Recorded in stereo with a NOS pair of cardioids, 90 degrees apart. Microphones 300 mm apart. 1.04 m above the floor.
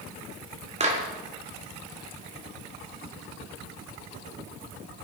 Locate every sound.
0.8 s a clap: 20° right, 2.5 m